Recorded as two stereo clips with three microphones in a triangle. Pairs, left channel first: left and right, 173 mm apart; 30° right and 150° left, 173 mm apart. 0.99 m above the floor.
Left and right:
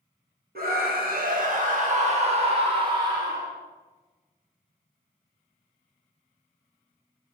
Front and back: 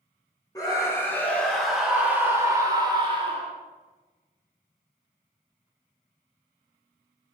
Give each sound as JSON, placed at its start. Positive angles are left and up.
{"t": 0.6, "sound": "a scream", "azimuth_deg": -95, "distance_m": 1.9}